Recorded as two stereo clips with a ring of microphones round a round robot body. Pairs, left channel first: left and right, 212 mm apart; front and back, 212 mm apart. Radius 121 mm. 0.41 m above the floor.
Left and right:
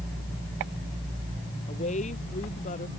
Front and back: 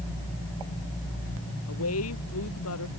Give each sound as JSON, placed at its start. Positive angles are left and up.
{"t": 1.7, "sound": "a woman speaking", "azimuth_deg": 30}